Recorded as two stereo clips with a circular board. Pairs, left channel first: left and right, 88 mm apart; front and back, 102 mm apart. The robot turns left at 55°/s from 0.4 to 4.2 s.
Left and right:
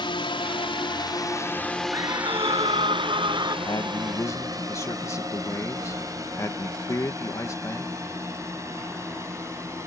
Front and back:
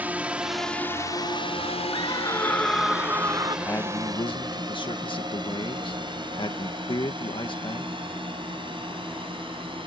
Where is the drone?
105° left; by 9.9 s 145° right.